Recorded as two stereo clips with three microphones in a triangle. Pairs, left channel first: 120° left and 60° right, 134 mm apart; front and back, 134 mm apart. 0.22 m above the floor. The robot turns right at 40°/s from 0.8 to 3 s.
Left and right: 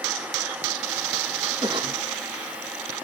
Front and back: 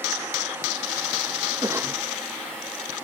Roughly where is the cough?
Behind right.